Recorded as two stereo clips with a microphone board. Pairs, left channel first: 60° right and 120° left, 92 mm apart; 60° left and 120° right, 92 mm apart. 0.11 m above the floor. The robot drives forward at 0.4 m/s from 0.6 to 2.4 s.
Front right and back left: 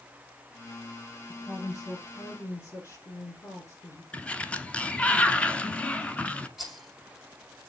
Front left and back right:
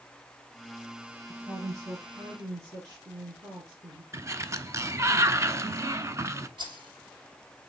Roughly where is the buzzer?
No buzzer in this recording.